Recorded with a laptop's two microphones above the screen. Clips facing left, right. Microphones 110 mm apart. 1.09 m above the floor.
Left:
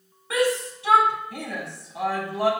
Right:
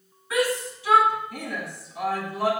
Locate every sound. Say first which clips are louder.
0.3 s a shout: left 2 dB; 75° left (ahead or behind), 6.5 m